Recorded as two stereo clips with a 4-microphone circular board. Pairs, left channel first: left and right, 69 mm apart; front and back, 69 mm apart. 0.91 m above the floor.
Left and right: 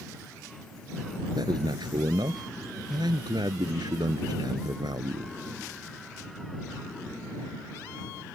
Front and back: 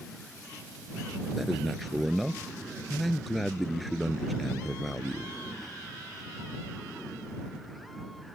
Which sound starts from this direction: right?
A man speaking, at 1.4 s.